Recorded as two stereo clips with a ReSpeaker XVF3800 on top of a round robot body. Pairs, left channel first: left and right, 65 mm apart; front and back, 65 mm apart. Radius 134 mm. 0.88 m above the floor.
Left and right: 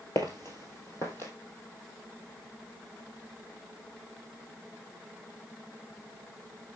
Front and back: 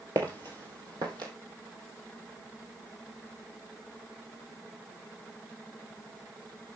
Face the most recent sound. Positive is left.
turn(degrees=150)